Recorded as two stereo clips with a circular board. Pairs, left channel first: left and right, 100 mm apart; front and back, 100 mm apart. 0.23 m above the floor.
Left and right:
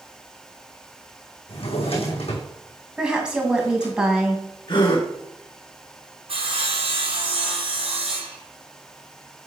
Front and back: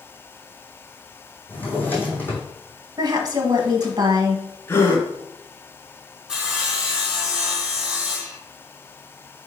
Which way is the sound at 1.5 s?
75° left.